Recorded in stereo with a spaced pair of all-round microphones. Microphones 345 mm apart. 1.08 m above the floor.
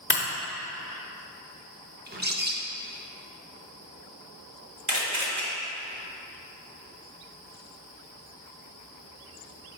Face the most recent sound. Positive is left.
turn(degrees=-55)  # may be behind; listen again after turning